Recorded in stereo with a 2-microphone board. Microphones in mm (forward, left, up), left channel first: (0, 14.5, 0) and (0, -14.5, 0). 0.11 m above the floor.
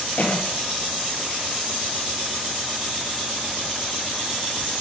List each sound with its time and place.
0.2 s a cough: 55° left (ahead or behind), 1.9 m